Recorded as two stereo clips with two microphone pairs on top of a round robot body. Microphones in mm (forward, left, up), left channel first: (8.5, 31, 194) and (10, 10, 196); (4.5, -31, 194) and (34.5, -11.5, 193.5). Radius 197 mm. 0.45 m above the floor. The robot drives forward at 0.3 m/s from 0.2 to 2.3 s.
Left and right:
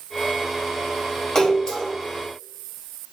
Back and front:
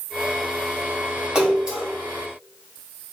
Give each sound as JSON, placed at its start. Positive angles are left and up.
{"t": 1.4, "sound": "a splash", "azimuth_deg": 85, "distance_m": 1.6}